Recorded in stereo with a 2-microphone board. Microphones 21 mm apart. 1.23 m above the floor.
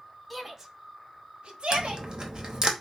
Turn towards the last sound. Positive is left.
turn(degrees=-45)  # may be behind; listen again after turning